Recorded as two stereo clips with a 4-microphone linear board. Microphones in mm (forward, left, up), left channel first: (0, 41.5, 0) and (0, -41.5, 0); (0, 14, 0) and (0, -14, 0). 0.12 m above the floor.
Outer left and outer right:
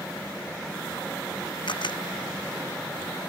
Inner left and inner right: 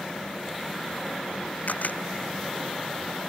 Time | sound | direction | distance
1.7 | a camera shutter | 70° left (ahead or behind) | ?